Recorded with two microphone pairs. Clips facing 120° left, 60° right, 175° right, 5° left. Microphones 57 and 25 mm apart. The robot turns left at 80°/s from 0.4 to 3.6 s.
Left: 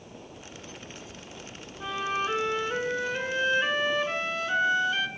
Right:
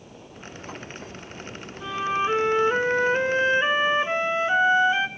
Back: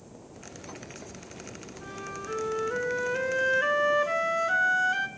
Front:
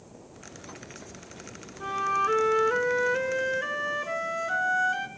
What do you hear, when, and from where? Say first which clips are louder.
1.8 s a flute: right 4 dB, front 13 dB; 35° left, 0.5 m; by 5.1 s 110° right, 0.5 m